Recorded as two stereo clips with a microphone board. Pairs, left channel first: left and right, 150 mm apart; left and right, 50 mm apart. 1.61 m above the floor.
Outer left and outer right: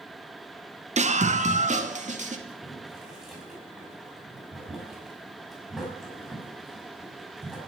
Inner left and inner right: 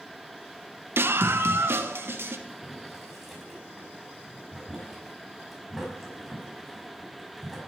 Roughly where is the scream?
Right.